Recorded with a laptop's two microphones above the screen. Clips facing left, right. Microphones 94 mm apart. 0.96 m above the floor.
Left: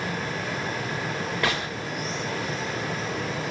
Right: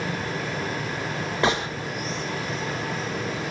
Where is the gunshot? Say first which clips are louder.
Right 5 dB; 25° right (ahead or behind), 0.7 m.